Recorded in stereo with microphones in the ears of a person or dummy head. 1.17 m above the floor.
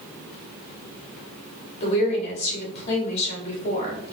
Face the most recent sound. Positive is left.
turn(degrees=35)  # may be behind; listen again after turning